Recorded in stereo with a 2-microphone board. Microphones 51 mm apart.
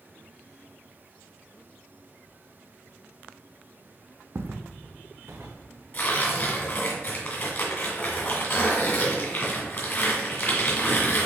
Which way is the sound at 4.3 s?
55° right (ahead or behind).